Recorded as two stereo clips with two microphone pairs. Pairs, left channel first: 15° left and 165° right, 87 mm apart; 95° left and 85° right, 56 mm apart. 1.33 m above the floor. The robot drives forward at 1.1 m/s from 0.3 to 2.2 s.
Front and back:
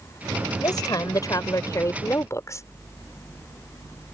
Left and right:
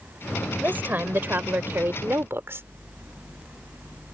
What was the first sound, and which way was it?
A woman speaking, 25° right.